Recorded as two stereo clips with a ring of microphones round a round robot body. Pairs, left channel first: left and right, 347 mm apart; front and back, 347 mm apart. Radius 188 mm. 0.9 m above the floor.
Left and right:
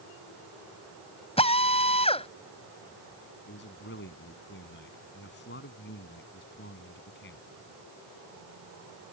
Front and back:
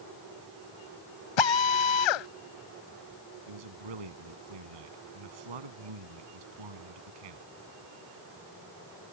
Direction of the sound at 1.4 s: 15° left.